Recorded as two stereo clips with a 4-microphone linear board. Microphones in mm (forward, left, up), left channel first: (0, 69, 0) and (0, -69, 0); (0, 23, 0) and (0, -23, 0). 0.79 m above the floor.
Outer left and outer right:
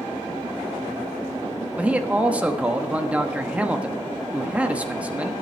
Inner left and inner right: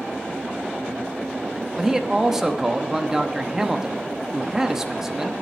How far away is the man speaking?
About 0.9 m.